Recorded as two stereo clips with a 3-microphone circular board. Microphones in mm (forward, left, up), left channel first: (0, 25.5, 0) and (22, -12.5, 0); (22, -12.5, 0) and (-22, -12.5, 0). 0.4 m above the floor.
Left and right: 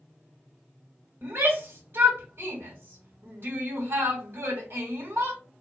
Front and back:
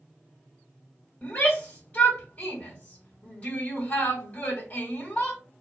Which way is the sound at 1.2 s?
50° right.